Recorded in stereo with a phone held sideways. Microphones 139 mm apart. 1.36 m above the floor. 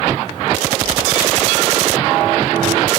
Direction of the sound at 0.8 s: 75° left (ahead or behind).